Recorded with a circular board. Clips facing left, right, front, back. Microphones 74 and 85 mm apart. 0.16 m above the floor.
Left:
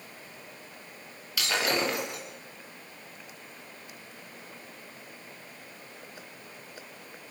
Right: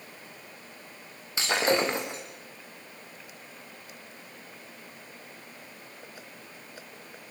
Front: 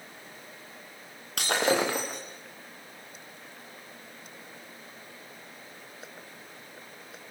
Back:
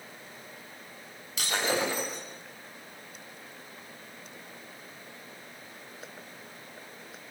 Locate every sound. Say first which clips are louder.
1.4 s breaking glass: right 3 dB, front 4 dB; 30° right, 6 m